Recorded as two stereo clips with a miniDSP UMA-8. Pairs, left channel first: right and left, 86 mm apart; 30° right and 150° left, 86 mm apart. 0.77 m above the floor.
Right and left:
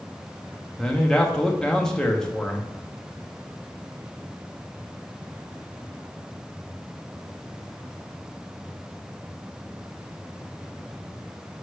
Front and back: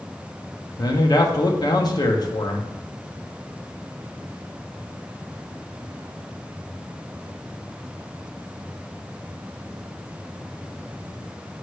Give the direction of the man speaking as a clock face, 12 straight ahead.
12 o'clock.